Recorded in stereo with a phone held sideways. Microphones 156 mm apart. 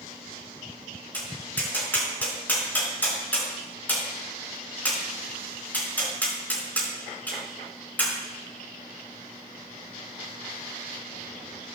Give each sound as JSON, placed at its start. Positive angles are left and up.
{"t": 1.1, "sound": "tapping", "side_deg": 10, "distance_m": 4.5}